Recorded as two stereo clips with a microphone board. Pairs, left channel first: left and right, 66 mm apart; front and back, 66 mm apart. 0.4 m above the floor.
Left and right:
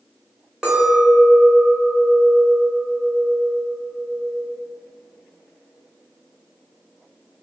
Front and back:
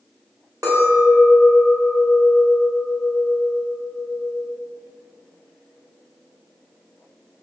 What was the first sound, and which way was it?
A clink, 165° right.